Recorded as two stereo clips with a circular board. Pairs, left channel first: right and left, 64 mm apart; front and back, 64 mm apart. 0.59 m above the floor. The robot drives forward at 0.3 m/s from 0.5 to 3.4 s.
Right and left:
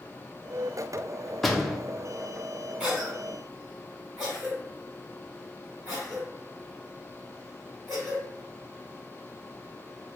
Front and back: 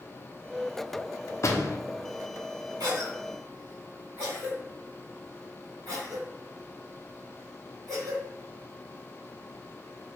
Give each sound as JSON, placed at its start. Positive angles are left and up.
{"t": 1.4, "sound": "a door slam", "azimuth_deg": -5, "distance_m": 0.6}
{"t": 2.8, "sound": "a cough", "azimuth_deg": 165, "distance_m": 1.6}